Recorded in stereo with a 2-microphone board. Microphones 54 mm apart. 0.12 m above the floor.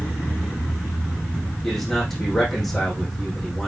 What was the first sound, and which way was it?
A man speaking, 5° left (ahead or behind).